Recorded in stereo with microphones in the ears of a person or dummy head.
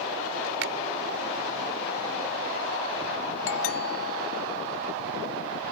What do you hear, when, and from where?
0.6 s a finger snap: 75° right (ahead or behind)
3.5 s a doorbell: 80° left